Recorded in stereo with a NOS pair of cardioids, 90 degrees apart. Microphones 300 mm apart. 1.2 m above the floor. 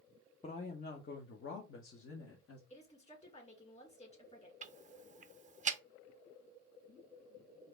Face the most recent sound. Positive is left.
turn(degrees=-25)